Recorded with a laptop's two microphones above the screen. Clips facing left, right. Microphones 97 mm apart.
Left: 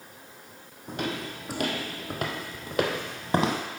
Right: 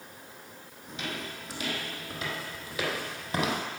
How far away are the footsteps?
About 2 m.